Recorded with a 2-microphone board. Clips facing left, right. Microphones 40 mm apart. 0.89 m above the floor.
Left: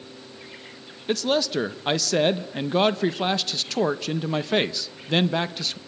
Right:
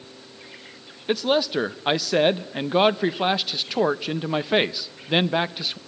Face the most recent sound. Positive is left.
turn(degrees=-15)  # may be behind; listen again after turning